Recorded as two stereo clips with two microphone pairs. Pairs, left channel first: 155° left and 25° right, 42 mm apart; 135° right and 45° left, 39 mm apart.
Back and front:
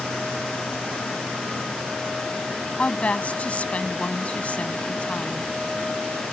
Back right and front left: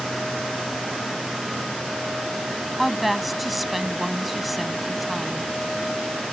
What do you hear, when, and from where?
2.8 s a woman speaking: 130° left